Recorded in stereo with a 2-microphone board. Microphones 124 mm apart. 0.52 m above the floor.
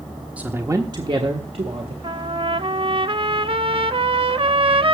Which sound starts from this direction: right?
A trumpet, at 2.0 s.